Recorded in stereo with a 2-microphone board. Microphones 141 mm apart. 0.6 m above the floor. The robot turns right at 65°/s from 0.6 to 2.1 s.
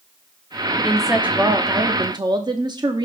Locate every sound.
0.8 s a woman speaking: 175° left, 0.9 m; by 3.0 s 105° right, 0.9 m